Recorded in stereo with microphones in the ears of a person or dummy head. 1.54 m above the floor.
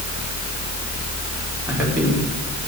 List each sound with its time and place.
1.7 s a man speaking: 10° right (ahead or behind), 5 m